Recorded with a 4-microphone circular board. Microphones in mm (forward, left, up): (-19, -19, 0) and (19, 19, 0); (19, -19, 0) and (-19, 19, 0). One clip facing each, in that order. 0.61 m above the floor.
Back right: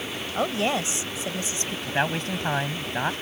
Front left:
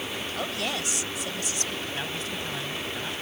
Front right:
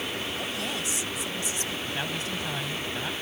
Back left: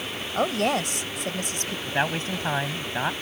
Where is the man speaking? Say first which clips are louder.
Back right 7 dB, back left 10 dB; 175° right.